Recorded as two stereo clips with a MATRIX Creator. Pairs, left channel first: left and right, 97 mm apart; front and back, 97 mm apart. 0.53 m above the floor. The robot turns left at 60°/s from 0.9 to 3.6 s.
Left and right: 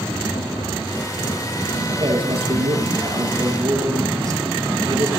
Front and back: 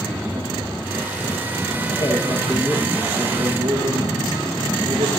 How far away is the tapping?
About 4.5 m.